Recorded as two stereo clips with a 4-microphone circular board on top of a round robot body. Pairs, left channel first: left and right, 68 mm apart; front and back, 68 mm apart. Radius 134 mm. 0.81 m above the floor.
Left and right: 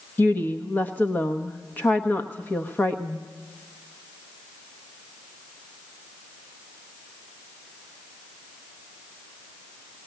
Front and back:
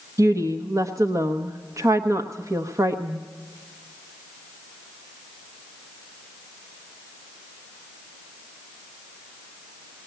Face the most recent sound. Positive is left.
turn(degrees=150)